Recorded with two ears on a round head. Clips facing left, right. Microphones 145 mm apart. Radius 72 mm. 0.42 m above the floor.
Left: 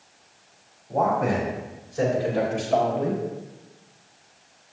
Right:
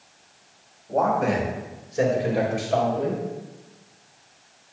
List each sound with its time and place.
0.9 s a man speaking: 55° right (ahead or behind), 2.5 m; by 3.2 s 10° left (ahead or behind), 2.5 m